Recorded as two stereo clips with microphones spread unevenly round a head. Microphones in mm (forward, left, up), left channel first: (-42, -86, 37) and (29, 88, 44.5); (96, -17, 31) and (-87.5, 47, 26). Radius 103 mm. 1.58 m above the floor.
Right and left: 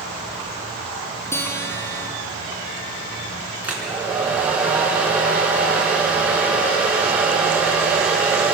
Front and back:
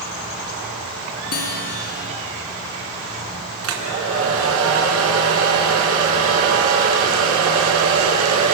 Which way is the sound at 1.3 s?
35° right.